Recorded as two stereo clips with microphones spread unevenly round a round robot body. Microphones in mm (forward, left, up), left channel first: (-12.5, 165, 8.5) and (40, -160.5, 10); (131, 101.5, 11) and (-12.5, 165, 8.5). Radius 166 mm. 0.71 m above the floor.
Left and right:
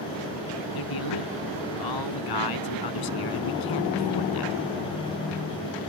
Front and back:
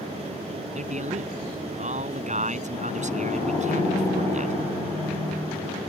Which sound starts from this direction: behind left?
A man speaking, at 0.8 s.